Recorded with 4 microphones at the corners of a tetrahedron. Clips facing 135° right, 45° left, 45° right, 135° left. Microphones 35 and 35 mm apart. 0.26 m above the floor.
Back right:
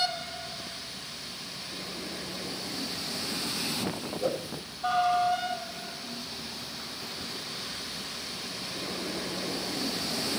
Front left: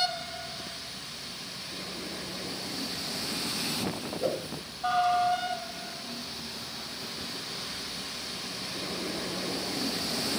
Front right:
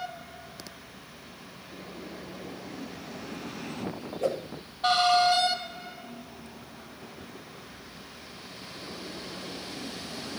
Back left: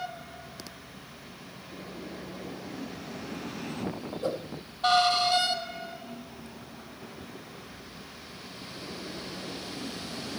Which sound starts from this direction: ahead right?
A whoosh, at 4.2 s.